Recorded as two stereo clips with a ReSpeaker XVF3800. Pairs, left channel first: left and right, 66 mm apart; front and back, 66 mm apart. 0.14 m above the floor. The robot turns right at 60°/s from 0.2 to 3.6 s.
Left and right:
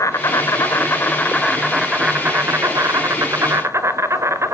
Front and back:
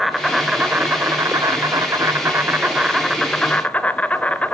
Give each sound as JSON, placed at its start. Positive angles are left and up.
{"t": 0.0, "sound": "an insect", "azimuth_deg": 90, "distance_m": 1.4}